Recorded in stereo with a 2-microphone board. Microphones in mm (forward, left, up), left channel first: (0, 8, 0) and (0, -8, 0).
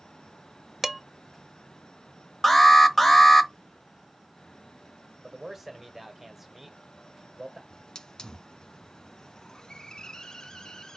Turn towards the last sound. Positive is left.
turn(degrees=45)  # may be behind; listen again after turning